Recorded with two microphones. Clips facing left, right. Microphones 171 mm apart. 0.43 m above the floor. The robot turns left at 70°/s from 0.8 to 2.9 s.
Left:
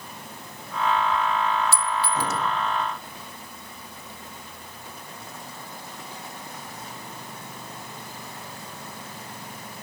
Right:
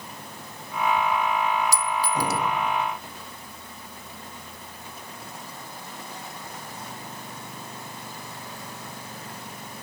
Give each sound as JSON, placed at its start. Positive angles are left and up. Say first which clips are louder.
{"t": 1.7, "sound": "a clink", "louder": "even", "side_deg": -40, "distance_m": 0.7}